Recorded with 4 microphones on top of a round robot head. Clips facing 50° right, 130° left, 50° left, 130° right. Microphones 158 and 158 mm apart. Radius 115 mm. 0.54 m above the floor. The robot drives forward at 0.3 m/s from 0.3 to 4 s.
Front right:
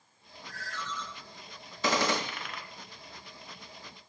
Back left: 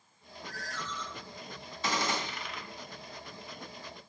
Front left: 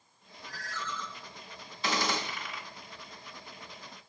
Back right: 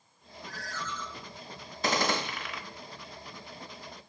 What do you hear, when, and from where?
0.5 s a ringtone: 175° right, 2.5 m; by 1.0 s straight behind, 2.5 m
1.8 s a gunshot: 80° right, 0.6 m; by 2.6 s 100° right, 0.6 m